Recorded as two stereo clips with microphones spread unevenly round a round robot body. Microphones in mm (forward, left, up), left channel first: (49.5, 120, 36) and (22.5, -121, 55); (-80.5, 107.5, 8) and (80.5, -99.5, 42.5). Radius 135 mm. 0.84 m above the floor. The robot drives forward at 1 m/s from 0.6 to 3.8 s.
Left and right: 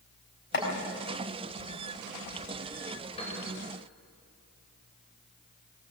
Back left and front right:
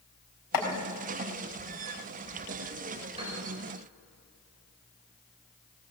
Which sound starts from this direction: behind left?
Chopping, at 0.5 s.